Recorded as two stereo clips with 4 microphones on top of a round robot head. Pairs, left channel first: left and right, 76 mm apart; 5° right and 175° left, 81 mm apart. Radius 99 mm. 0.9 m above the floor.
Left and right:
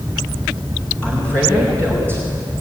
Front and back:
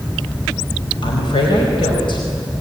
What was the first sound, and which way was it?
A woman speaking, 15° left.